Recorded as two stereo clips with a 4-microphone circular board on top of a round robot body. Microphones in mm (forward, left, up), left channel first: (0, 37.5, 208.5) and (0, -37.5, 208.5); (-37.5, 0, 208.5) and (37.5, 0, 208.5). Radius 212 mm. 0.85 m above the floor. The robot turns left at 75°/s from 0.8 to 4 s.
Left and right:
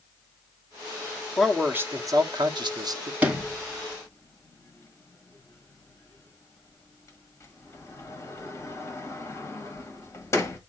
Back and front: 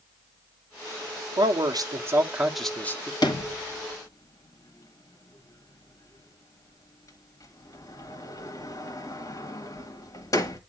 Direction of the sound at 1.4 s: Straight ahead.